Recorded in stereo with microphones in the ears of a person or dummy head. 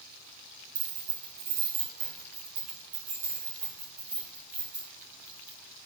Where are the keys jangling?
40° right (ahead or behind), 0.9 m; by 5.6 s 5° left (ahead or behind), 2.0 m.